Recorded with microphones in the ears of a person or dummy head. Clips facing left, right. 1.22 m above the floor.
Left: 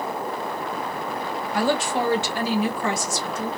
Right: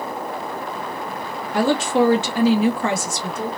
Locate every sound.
1.5 s a woman speaking: 50° right (ahead or behind), 0.7 m